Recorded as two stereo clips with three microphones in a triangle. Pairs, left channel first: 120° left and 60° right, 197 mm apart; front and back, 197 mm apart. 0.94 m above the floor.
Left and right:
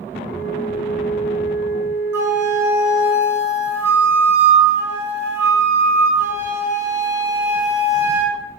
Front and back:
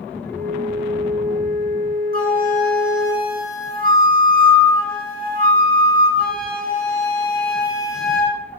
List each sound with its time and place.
0.2 s a flute: 135° left, 5 m
2.1 s a flute: 140° right, 4 m